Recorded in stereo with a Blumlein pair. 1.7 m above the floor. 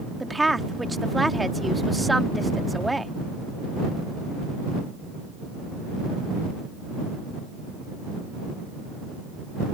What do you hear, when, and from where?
0.2 s a woman speaking: 5° right